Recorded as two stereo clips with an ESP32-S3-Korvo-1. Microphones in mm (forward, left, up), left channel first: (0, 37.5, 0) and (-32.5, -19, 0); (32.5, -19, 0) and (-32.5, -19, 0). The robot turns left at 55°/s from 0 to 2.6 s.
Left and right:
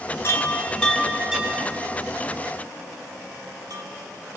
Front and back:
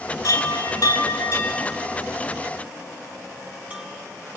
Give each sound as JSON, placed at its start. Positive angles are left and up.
{"t": 0.2, "sound": "a chime", "azimuth_deg": 10, "distance_m": 3.5}